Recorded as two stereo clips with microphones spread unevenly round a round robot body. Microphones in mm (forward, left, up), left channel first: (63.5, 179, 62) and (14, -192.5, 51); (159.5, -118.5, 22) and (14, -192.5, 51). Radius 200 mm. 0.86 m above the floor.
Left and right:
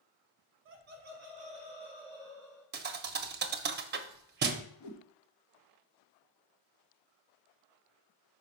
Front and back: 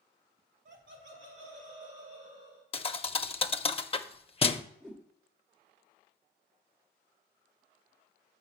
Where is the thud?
35° right, 0.5 m.